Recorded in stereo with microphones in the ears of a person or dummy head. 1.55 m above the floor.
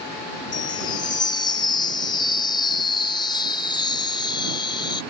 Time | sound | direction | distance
0.5 | a chime | 30° left (ahead or behind) | ?